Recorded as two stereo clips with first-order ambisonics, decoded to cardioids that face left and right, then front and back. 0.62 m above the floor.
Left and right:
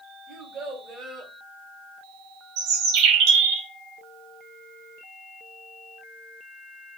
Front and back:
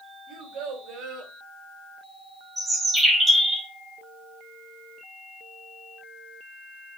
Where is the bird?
100° right, 1.0 m.